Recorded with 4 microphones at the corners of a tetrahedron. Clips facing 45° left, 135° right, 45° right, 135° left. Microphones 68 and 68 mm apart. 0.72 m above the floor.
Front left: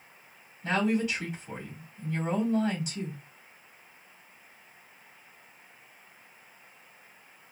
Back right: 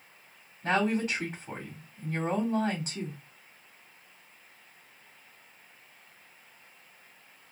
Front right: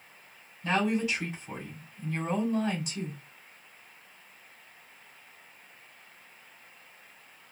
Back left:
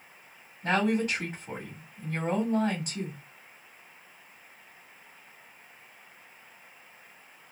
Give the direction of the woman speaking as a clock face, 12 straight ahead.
6 o'clock.